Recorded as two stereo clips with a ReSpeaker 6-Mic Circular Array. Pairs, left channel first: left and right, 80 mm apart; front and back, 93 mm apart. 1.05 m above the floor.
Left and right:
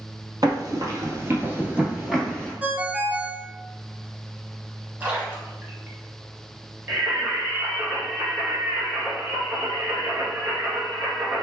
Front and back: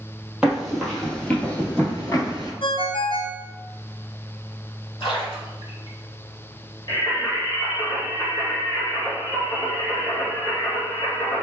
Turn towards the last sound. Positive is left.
turn(degrees=-35)